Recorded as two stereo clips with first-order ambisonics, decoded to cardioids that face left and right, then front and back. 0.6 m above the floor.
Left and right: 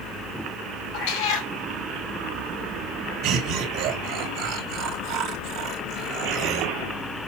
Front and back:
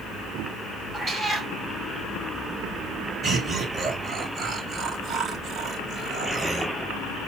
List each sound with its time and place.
0.9 s a cat meowing: 85° left, 3 m
3.2 s laughter: 115° right, 2.5 m